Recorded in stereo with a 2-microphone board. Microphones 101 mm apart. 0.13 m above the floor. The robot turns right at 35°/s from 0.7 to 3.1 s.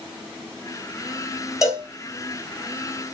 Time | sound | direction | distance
1.6 | a cowbell | 35° left (ahead or behind) | 3 m